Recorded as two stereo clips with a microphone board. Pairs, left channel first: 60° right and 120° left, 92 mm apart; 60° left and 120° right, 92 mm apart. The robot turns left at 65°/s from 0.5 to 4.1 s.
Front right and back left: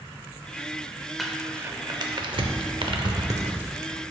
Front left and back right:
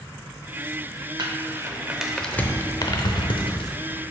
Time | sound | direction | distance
1.2 | crumpling | 150° right | 0.6 m